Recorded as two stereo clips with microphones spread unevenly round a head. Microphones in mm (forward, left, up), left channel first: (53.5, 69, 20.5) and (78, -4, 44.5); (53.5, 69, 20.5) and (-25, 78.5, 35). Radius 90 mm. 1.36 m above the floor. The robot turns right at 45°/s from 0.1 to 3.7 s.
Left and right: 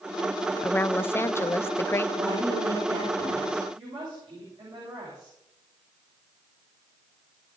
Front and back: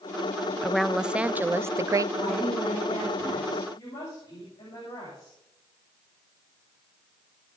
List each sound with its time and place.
0.6 s a woman speaking: 65° left, 0.5 m; by 2.1 s 130° left, 0.5 m
2.2 s a woman speaking: 115° right, 7 m; by 3.6 s 45° right, 7 m
3.8 s a woman speaking: 45° right, 8.5 m